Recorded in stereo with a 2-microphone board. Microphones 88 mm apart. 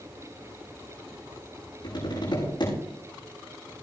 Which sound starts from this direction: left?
Tapping, at 1.8 s.